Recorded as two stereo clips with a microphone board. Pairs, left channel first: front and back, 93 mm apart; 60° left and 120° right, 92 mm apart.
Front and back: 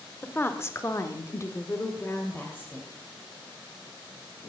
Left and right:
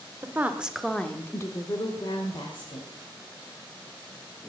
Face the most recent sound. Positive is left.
turn(degrees=70)